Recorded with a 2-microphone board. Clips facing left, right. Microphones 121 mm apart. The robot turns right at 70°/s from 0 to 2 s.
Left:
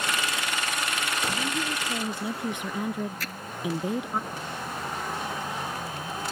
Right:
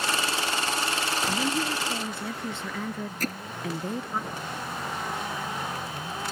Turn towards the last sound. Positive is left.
turn(degrees=-50)  # may be behind; listen again after turning